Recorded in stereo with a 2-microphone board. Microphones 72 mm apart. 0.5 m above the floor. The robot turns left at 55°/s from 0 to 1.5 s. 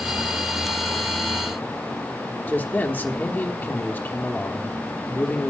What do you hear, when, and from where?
2.5 s a man speaking: 25° left (ahead or behind), 1.1 m